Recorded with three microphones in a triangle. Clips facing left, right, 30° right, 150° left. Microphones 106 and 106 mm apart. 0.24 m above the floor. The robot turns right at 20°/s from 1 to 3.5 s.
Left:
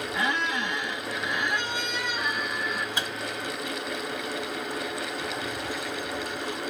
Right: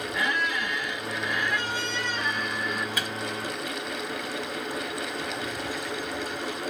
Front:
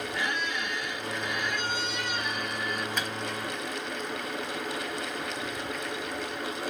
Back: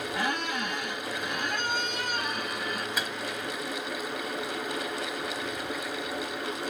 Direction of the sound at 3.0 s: 70° left.